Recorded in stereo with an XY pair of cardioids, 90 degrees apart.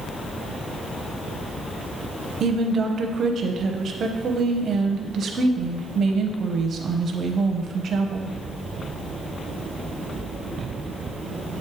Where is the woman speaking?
55° right, 0.8 m.